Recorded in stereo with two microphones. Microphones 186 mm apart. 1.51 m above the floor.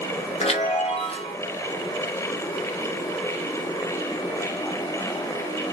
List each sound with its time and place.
0.4 s a chime: 35° left (ahead or behind), 0.8 m